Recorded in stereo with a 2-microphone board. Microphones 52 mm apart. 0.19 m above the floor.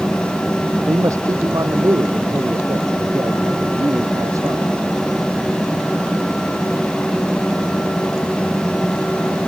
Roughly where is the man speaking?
Right.